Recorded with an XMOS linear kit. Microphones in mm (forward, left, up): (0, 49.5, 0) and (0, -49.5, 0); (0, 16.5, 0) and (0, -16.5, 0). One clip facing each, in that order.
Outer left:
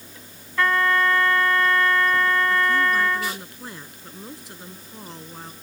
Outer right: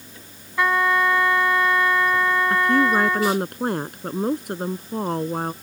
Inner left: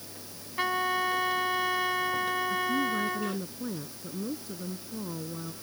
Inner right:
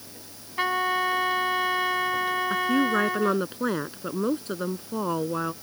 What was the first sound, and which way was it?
A trumpet, 15° right (ahead or behind).